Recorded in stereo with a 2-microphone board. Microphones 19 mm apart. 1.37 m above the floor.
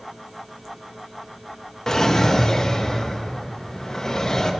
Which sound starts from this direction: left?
A drawer, at 1.9 s.